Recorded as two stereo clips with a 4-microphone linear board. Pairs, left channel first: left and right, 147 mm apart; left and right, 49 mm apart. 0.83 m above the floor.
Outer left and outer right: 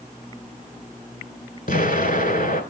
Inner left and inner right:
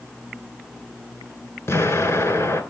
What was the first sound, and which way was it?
An explosion, 65° left (ahead or behind).